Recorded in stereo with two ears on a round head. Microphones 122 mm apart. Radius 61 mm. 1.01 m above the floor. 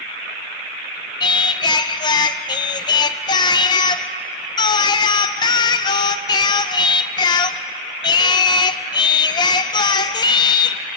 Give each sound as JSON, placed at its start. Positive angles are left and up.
{"t": 1.2, "sound": "singing", "side_deg": 30, "distance_m": 0.6}